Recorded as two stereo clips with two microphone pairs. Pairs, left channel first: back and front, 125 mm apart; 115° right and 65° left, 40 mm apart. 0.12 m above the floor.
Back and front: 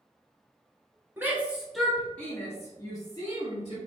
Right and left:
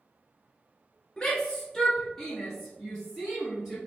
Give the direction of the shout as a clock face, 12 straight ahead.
2 o'clock.